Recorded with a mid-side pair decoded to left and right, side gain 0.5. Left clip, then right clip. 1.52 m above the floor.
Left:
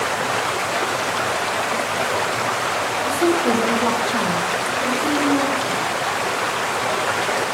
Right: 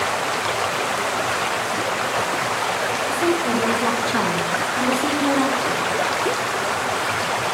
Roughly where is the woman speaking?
Ahead left.